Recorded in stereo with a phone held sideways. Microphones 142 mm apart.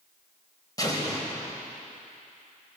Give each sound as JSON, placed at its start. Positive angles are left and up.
{"t": 0.8, "sound": "an explosion", "side_deg": 25, "distance_m": 3.5}